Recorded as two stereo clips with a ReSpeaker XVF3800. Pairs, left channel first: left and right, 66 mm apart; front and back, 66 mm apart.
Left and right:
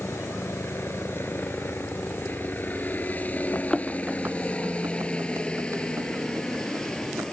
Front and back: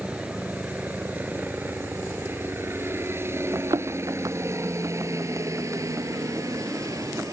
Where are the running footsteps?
140° left; by 7.2 s 130° right.